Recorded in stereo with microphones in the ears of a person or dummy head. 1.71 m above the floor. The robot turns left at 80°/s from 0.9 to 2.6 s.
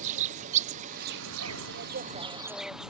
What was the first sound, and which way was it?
An insect, 40° right.